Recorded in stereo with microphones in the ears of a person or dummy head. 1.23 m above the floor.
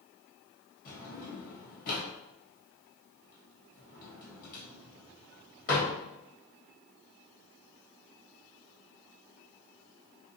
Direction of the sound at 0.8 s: 50° left (ahead or behind).